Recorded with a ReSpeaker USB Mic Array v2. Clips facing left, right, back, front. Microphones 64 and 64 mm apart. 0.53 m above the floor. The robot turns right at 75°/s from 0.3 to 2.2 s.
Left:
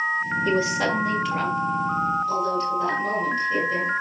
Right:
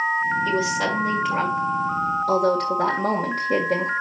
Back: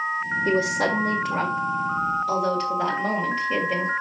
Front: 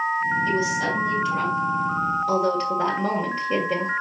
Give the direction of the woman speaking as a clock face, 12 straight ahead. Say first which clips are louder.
Even, back 1 dB; 7 o'clock.